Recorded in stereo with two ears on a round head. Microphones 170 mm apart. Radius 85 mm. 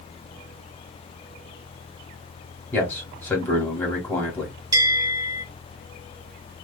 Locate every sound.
2.7 s a man speaking: 10° left (ahead or behind), 2.5 m
4.7 s a bell: 20° right (ahead or behind), 1.6 m